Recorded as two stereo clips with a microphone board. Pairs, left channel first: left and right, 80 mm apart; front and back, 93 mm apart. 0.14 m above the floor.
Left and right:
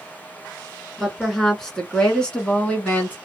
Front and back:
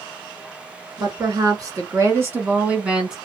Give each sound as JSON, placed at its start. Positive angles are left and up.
{"t": 1.0, "sound": "a woman speaking", "azimuth_deg": 175, "distance_m": 1.6}